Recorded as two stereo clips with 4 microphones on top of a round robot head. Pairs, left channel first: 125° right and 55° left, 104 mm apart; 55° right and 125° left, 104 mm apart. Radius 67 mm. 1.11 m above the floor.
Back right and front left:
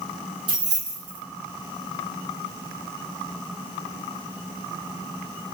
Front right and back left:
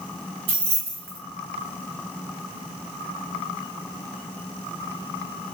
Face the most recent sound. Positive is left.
turn(degrees=95)